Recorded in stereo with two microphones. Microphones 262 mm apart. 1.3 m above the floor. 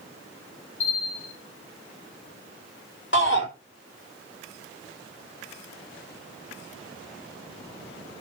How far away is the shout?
About 4 m.